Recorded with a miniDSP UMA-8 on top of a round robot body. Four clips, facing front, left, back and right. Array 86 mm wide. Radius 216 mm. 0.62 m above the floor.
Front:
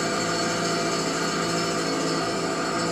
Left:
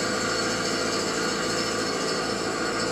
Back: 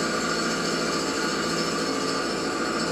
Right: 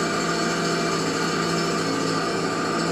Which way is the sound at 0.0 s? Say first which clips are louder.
Right 3 dB, even; 75° right.